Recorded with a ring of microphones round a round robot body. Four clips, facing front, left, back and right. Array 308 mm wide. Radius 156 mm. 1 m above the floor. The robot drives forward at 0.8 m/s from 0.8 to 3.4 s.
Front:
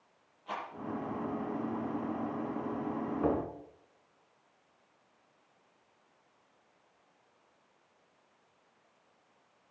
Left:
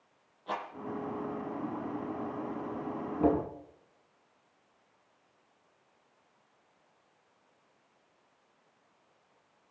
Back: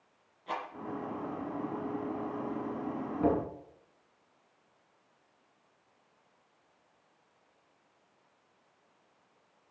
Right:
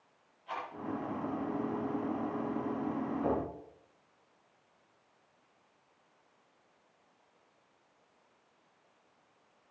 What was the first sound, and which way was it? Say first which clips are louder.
A rattle: left 3 dB, back 2 dB; 115° left.